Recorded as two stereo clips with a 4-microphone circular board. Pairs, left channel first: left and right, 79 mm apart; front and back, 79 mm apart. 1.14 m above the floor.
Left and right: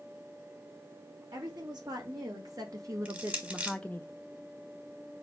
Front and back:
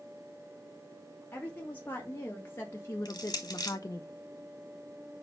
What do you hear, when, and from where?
1.3 s a woman speaking: 65° right, 2.5 m; by 4.0 s 40° left, 0.6 m
3.0 s crushing: 20° right, 1.5 m